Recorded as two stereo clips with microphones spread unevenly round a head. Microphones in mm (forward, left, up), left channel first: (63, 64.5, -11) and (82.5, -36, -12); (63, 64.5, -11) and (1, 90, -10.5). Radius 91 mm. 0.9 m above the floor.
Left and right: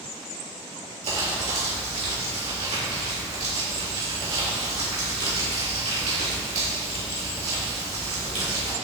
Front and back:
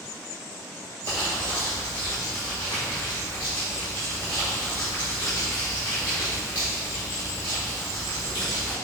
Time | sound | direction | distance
1.0 | crumpling | 70° right | 1.6 m